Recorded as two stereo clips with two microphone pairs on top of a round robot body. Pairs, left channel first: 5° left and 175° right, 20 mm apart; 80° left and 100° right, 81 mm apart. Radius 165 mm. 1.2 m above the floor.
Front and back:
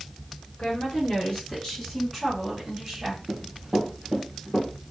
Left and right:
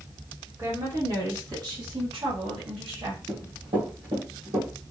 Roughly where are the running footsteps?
Behind right.